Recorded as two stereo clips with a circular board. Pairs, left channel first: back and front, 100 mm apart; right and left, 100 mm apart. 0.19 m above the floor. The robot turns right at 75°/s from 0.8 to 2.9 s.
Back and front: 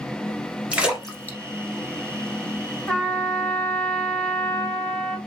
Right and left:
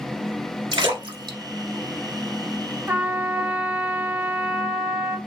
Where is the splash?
75° left, 1.0 m; by 2.9 s 130° right, 1.0 m.